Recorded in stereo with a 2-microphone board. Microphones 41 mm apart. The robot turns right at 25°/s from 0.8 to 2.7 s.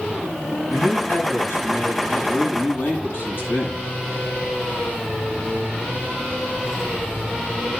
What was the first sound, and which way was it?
A man speaking, 35° left (ahead or behind).